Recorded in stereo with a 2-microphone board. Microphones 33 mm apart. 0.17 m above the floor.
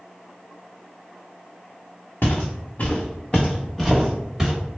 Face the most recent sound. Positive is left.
turn(degrees=-5)  # may be behind; listen again after turning